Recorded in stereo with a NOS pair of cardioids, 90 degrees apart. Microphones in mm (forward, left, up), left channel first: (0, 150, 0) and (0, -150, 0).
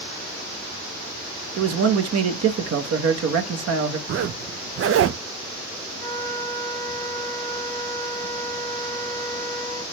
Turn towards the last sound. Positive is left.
turn(degrees=-35)